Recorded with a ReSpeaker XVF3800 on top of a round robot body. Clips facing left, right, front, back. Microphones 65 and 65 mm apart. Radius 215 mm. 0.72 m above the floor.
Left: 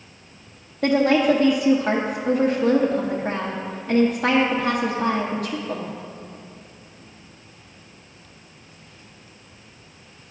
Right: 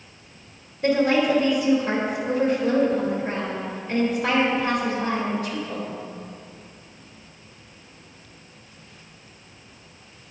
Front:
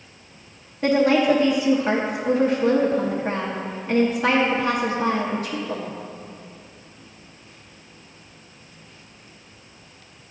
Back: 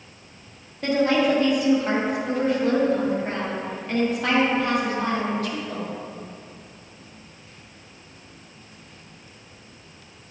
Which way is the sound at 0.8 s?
75° left.